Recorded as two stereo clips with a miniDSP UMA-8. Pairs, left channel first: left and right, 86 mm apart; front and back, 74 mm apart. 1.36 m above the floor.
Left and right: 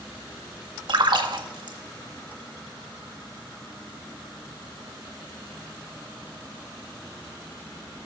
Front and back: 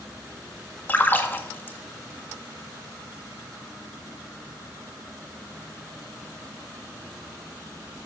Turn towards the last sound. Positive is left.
turn(degrees=-65)